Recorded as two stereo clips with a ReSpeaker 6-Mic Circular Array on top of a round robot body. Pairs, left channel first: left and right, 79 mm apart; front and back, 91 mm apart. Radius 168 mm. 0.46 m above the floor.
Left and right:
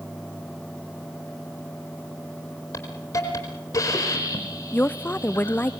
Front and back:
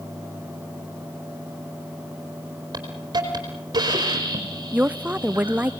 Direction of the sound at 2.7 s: 135° left.